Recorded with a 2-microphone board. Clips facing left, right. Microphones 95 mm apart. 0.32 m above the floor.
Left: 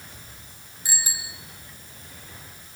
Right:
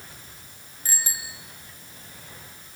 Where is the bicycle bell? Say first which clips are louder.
Even; 10° left (ahead or behind), 3.5 m.